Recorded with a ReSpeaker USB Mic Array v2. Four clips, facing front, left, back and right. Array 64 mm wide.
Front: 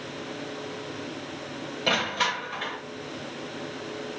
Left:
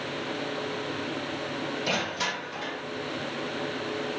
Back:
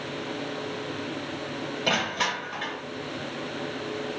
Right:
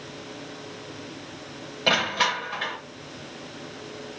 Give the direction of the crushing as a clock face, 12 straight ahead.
3 o'clock.